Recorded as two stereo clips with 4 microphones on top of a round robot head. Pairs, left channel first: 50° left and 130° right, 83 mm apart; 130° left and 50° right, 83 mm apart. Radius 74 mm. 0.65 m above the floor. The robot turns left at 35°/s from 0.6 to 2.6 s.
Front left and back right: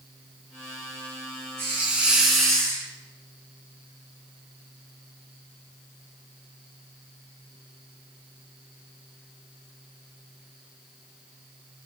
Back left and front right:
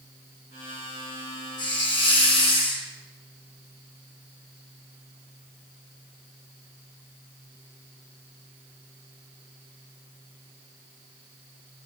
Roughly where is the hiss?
Behind.